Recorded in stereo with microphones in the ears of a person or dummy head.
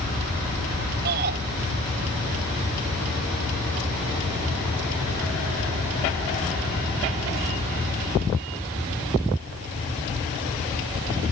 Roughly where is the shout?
Right.